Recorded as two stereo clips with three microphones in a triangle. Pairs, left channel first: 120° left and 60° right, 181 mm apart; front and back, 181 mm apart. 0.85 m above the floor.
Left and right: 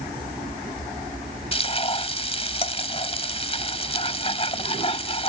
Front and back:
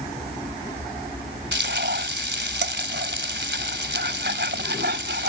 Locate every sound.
1.5 s frying: 175° left